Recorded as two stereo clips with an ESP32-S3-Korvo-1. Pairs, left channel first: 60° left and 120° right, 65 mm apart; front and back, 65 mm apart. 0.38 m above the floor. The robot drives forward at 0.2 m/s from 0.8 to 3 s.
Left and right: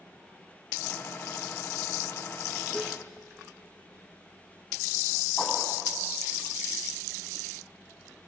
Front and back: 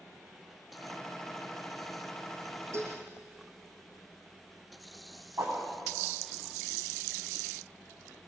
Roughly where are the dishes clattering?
Behind left.